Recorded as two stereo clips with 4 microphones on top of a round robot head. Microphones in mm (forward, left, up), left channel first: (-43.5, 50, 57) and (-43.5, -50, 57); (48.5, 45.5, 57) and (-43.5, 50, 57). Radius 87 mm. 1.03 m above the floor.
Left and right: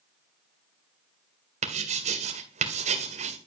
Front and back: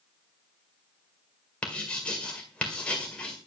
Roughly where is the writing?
Right.